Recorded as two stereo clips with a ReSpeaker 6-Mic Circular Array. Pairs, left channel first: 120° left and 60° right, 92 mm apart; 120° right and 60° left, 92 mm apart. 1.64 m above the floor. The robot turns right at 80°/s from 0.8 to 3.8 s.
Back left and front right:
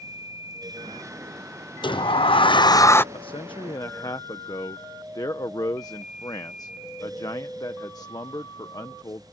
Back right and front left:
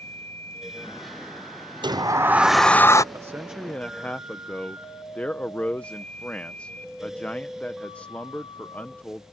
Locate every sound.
1.8 s a sliding door: 90° left; by 3.0 s 170° right
3.1 s a man speaking: 110° left; by 9.2 s 165° left